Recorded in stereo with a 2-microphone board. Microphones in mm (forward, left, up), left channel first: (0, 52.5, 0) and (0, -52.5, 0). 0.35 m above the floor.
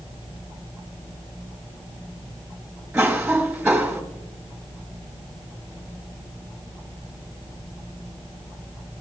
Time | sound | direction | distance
2.9 | a cough | 10° right (ahead or behind) | 2.5 m